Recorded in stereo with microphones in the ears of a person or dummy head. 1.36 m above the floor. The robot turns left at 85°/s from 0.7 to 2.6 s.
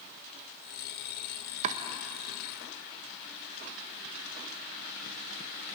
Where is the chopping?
35° right (ahead or behind), 1.2 m; by 1.8 s 50° right (ahead or behind), 1.2 m.